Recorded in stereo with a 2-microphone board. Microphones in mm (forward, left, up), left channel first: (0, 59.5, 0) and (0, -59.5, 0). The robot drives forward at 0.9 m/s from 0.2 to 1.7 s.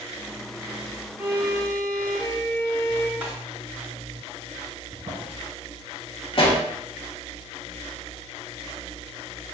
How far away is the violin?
About 0.5 m.